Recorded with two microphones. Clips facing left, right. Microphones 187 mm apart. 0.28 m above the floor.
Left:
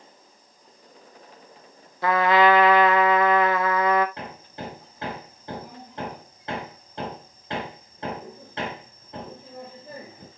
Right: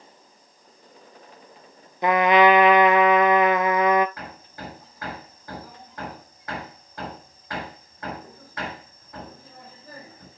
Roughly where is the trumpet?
Centre.